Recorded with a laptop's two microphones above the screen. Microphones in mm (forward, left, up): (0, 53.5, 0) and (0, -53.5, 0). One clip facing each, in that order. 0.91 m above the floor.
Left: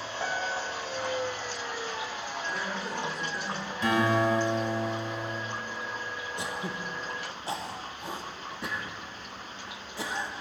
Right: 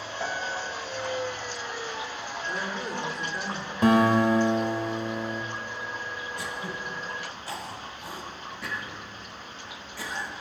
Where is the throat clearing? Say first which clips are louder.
Left 2 dB; 25° left (ahead or behind), 0.9 m.